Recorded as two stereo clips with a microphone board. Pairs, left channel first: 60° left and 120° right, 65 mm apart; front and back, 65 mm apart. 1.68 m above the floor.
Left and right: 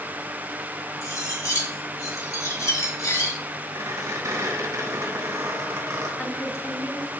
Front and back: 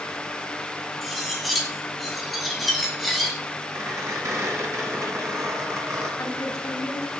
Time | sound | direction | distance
1.0 | cutlery clinking | 90° left | 1.8 m
3.8 | a squeak | 155° right | 3 m
6.2 | a woman speaking | 20° left | 3 m